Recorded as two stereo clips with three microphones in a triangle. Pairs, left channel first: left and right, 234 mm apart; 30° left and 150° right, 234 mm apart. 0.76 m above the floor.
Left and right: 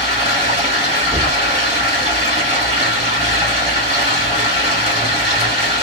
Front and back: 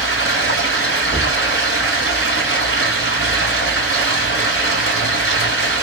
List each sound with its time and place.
0.0 s running water: 155° right, 2.5 m
1.1 s knocking: 175° left, 1.8 m